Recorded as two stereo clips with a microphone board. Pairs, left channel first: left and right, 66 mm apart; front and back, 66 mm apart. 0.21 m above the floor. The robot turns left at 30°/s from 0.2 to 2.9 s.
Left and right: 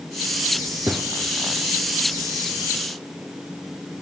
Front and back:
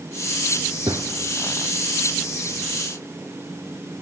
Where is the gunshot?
150° right, 1.7 m; by 1.1 s 155° right, 1.7 m.